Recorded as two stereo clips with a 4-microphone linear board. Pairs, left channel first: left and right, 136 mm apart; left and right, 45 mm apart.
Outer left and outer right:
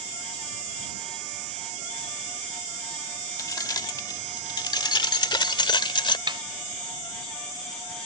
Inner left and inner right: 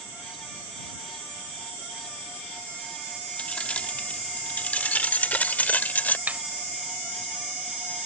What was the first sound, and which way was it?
Keys jangling, 25° left (ahead or behind).